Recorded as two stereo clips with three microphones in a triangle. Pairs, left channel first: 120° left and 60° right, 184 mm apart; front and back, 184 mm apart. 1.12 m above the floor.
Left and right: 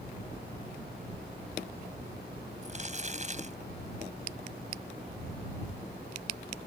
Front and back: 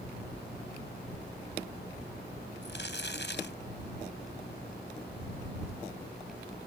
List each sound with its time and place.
2.6 s crumpling: 10° right